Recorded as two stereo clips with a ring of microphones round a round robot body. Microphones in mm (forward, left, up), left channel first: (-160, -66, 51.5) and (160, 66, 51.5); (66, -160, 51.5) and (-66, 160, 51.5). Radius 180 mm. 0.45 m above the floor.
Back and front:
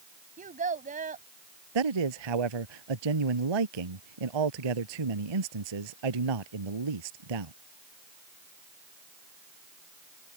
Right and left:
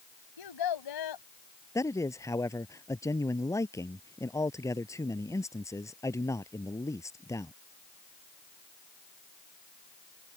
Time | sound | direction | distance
0.4 | a child speaking | 45° right | ?
1.8 | a man speaking | 15° left | ?